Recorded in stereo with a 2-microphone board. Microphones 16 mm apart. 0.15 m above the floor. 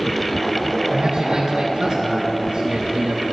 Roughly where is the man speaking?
Right.